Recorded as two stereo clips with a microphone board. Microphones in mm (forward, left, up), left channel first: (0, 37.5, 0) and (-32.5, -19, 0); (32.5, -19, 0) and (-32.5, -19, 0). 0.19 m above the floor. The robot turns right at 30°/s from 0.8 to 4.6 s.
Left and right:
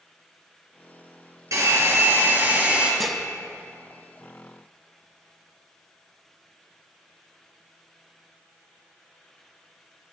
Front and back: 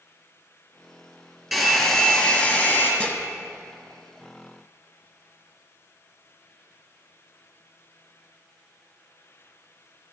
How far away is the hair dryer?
About 3 m.